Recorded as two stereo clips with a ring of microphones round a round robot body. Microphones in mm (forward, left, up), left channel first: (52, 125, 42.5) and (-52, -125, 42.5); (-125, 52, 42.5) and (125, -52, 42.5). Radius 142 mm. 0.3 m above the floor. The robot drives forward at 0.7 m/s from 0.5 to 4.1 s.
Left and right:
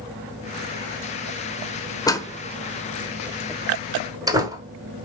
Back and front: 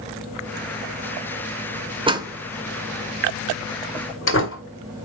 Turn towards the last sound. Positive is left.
turn(degrees=175)